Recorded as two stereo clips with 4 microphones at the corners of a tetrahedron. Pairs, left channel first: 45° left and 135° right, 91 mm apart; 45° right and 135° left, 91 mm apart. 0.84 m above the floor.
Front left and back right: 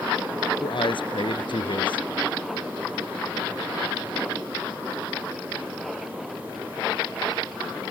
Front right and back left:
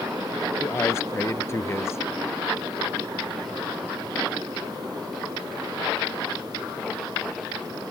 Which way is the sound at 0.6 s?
20° left.